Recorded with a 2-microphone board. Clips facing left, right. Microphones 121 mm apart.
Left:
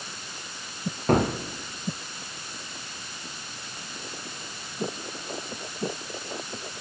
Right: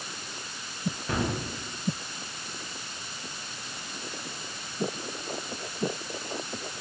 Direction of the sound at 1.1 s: 50° left (ahead or behind).